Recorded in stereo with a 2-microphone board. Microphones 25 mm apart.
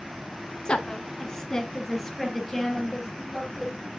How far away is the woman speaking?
About 1.4 m.